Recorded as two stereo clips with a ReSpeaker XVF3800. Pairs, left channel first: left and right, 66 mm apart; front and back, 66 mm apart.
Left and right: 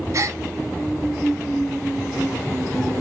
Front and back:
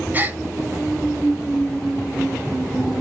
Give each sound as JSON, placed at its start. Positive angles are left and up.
{"t": 0.1, "sound": "a gasp", "azimuth_deg": -120, "distance_m": 0.7}